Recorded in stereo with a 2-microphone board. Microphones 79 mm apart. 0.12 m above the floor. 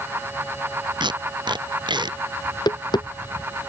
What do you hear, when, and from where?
1.0 s tape being pulled: 75° right (ahead or behind)
2.5 s tapping: 60° left (ahead or behind)